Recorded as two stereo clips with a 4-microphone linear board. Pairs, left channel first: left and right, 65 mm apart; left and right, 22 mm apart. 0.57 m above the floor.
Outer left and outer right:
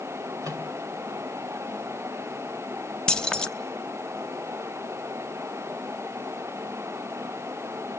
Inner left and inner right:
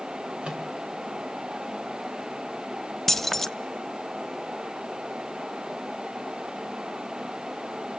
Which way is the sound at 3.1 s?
10° left (ahead or behind).